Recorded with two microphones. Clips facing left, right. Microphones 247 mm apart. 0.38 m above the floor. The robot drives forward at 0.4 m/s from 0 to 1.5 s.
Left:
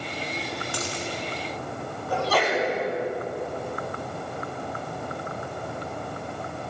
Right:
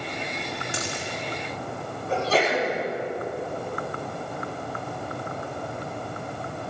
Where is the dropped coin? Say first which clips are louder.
Even; 20° right (ahead or behind), 3 m.